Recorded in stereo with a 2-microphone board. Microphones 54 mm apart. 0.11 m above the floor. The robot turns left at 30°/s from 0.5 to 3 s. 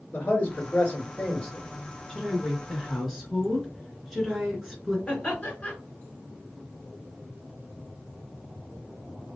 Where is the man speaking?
55° left, 1.9 m; by 1.7 s 20° left, 1.9 m.